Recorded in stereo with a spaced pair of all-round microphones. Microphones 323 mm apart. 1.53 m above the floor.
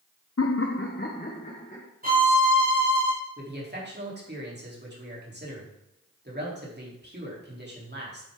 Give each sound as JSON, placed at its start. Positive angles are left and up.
{"t": 0.4, "sound": "laughter", "side_deg": 50, "distance_m": 0.6}
{"t": 2.0, "sound": "a violin", "side_deg": -25, "distance_m": 3.0}
{"t": 3.4, "sound": "a man speaking", "side_deg": -30, "distance_m": 3.0}